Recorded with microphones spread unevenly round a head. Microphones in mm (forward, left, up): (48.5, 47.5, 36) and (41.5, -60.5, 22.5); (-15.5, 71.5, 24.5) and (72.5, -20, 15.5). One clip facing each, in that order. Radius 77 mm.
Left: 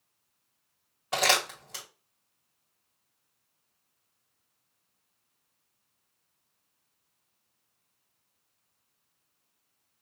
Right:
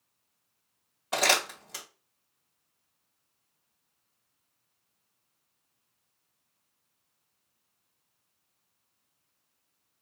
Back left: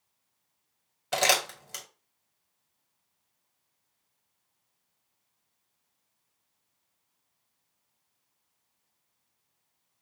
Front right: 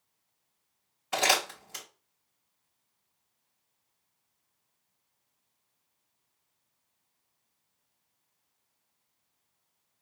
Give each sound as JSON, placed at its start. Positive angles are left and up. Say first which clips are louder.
{"t": 1.1, "sound": "crumpling", "louder": "even, back left 1 dB", "azimuth_deg": 175, "distance_m": 1.9}